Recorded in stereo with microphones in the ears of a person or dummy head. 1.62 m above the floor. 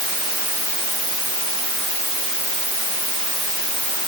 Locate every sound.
Only background noise.